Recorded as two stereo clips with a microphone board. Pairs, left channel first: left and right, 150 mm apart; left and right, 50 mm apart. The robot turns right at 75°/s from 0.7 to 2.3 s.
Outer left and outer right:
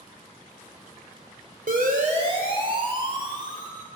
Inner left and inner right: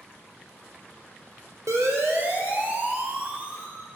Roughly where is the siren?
Right.